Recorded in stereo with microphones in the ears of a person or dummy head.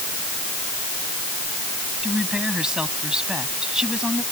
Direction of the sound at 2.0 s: Centre (ahead or behind).